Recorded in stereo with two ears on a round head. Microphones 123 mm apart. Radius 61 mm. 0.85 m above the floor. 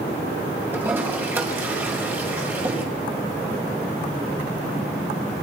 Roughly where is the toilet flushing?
Centre.